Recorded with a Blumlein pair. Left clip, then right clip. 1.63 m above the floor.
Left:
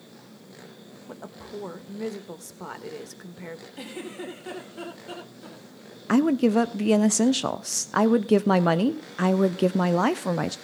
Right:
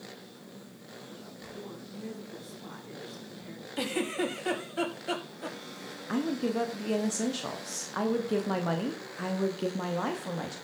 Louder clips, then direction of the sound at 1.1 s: Left 10 dB; 40° left.